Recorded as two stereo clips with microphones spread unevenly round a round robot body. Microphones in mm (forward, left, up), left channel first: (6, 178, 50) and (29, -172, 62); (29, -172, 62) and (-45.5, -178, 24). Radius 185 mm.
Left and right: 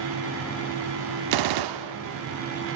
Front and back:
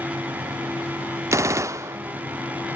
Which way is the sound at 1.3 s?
110° right.